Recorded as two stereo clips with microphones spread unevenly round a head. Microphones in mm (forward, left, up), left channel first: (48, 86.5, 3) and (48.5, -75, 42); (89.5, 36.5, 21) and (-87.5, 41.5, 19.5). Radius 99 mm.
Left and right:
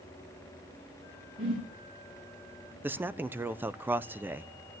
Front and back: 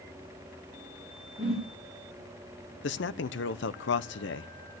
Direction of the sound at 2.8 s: 20° right.